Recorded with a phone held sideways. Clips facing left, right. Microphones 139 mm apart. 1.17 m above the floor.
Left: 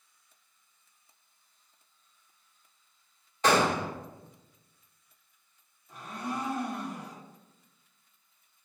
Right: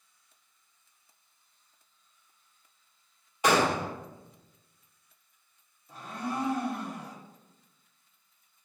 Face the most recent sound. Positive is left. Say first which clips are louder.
# right 1 dB
turn(degrees=-30)  # may be behind; listen again after turning